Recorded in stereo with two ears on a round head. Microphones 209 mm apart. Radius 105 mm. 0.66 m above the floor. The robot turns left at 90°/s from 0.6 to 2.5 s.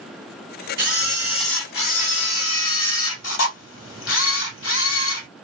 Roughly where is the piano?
I don't hear a piano.